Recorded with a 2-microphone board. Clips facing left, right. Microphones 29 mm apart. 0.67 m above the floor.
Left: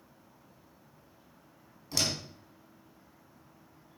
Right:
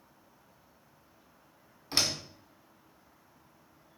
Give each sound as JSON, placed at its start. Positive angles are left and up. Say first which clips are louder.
{"t": 1.9, "sound": "a door slam", "louder": "right 1 dB", "side_deg": -30, "distance_m": 4.0}